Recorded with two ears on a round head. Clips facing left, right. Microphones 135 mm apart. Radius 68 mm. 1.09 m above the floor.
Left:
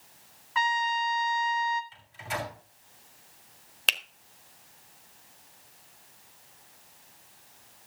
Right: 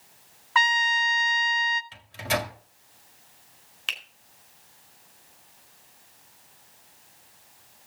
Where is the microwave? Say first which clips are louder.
Right 7 dB; 70° right (ahead or behind), 1.7 m.